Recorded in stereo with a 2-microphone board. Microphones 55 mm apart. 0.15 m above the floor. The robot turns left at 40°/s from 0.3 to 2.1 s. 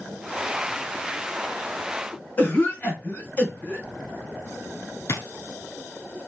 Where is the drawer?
50° left (ahead or behind), 0.9 m.